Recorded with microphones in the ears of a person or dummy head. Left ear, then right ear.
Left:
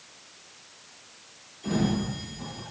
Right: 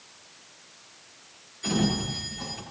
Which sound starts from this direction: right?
A sliding door, at 1.6 s.